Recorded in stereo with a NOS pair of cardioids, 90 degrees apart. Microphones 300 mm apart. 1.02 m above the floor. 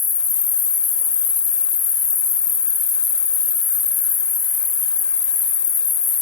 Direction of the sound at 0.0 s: 60° left.